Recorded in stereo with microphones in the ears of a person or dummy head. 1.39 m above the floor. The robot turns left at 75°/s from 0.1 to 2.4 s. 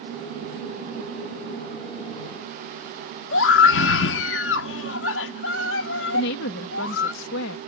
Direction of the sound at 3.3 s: 80° left.